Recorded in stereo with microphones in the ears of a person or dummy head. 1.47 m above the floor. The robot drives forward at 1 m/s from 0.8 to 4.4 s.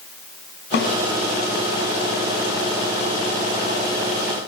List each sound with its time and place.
0.7 s a snare drum: 50° left (ahead or behind), 7.5 m